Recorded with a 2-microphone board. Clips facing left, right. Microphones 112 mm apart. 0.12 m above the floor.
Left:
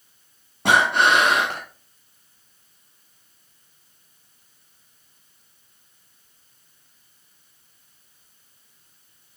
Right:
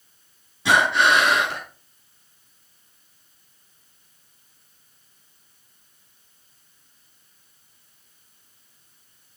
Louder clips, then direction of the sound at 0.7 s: Left 1 dB; 50° left (ahead or behind).